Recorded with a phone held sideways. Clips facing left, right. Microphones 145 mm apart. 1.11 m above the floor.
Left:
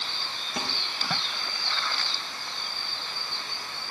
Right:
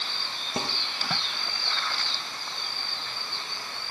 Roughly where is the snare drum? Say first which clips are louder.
Right 3 dB; right.